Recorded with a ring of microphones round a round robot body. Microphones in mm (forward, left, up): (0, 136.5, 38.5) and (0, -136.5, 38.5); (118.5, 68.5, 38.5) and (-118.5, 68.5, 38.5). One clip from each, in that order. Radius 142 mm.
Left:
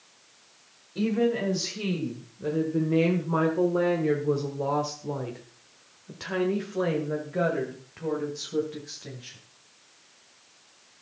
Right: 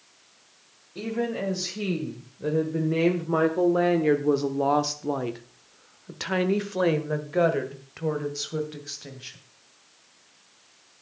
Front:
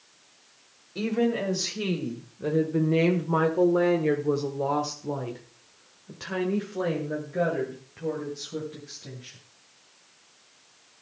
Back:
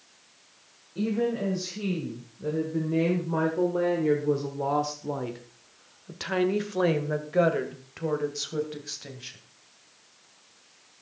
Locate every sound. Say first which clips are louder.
0.9 s a woman speaking: left 3 dB, front 2 dB; 10° right, 2 m; by 9.4 s 150° right, 2.5 m